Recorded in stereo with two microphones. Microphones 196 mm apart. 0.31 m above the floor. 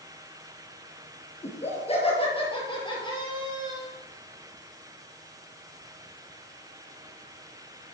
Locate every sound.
1.4 s laughter: 35° left (ahead or behind), 5 m; by 3.9 s 20° left (ahead or behind), 6 m